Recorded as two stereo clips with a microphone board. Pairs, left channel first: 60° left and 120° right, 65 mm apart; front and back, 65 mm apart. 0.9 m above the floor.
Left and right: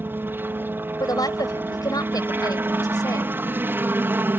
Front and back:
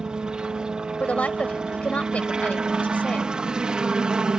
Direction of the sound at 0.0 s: 115° right.